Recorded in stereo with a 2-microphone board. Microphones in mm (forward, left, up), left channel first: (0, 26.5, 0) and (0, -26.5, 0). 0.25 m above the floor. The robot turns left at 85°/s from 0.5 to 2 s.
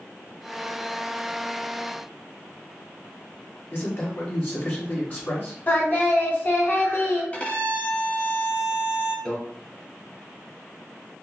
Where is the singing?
35° left (ahead or behind), 1.0 m.